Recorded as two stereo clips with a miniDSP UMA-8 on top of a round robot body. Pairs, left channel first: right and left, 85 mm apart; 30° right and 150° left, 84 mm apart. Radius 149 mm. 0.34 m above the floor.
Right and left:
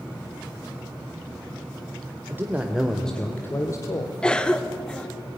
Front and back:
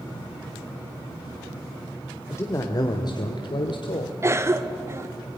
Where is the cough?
165° right, 1.2 m.